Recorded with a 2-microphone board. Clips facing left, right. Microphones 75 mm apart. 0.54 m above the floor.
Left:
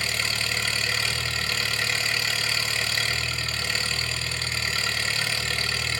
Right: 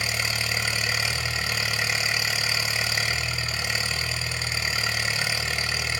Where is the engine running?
15° right (ahead or behind), 1.3 m.